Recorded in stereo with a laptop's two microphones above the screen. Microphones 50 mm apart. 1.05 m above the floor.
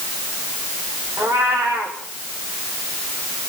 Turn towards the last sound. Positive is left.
turn(degrees=-80)